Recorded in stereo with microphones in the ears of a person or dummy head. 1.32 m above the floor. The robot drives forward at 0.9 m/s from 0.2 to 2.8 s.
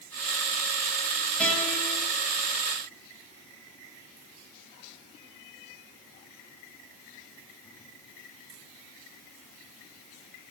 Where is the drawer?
No drawer in this recording.